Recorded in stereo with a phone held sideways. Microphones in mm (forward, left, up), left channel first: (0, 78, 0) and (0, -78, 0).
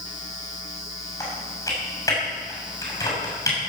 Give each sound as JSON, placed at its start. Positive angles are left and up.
{"t": 1.2, "sound": "typing on a keyboard", "side_deg": 20, "distance_m": 6.5}